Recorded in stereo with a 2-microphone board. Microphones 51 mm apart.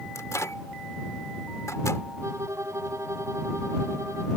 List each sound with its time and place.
0.1 s a microwave: 85° left
2.2 s a violin: 70° right (ahead or behind)